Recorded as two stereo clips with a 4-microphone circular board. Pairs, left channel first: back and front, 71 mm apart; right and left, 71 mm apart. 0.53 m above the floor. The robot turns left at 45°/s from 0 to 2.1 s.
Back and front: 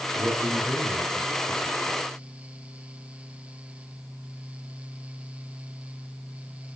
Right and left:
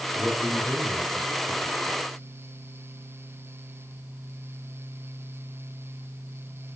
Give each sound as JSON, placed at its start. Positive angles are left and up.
{"t": 0.1, "sound": "a man speaking", "azimuth_deg": 35, "distance_m": 6.5}